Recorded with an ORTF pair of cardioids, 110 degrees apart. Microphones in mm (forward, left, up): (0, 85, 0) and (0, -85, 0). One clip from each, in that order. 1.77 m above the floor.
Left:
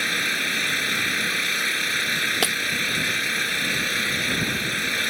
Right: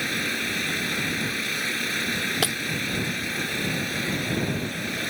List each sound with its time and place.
0.0 s an engine running: 60° left
2.4 s breaking glass: 35° left